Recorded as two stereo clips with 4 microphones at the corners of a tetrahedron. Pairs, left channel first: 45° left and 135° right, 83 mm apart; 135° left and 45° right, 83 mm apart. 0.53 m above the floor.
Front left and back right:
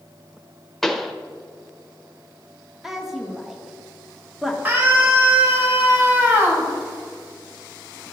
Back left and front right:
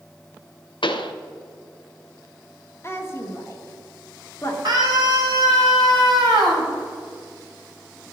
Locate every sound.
0.8 s a pop: 130° left, 0.7 m
2.8 s a woman speaking: 140° left, 1.3 m
4.7 s a scream: 70° right, 3 m